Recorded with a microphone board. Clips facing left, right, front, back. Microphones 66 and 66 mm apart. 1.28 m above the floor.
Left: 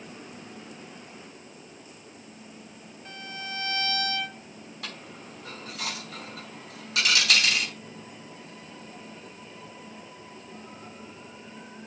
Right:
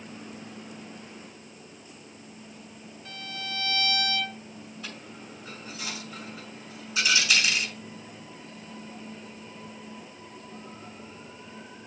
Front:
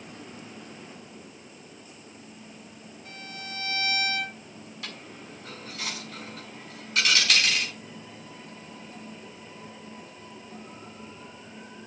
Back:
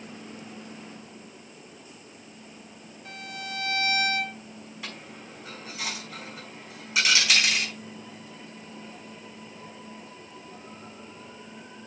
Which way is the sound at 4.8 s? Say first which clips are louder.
Left 3 dB, back 1 dB; 100° left.